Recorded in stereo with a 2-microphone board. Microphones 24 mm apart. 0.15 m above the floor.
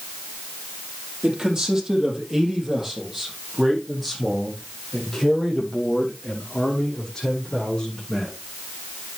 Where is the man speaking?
30° right (ahead or behind), 4.5 m; by 8.3 s 25° left (ahead or behind), 8 m.